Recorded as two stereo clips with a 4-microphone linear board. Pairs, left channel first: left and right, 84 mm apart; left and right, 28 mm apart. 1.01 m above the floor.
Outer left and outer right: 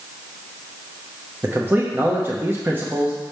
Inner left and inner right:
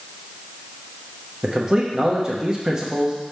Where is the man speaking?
25° right (ahead or behind), 0.8 m.